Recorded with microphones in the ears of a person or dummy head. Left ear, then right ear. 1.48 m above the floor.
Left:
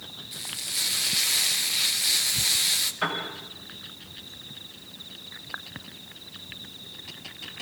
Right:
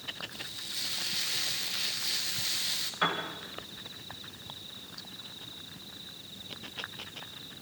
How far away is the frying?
About 1.2 m.